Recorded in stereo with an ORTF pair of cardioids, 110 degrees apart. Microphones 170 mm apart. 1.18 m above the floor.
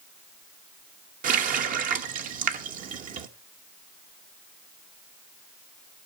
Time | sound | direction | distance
1.2 | a running tap | 55° right | 1.0 m